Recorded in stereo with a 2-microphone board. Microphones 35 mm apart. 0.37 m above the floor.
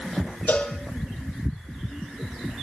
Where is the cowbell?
75° left (ahead or behind), 5 m.